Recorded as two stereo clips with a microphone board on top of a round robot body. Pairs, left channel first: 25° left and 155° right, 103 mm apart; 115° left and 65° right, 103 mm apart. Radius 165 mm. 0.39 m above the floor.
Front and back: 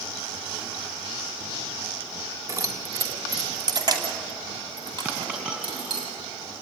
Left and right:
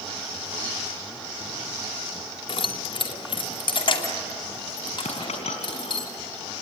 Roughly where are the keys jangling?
Behind left.